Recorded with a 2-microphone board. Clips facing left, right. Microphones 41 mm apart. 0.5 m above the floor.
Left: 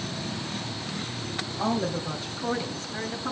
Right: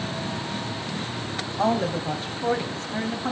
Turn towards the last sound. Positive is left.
turn(degrees=-45)  # may be behind; listen again after turning